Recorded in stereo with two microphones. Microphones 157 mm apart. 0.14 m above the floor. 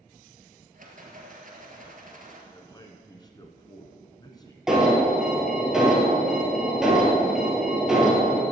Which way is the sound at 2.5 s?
25° left (ahead or behind).